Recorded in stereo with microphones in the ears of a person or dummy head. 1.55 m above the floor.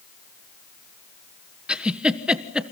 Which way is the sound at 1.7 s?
5° right (ahead or behind).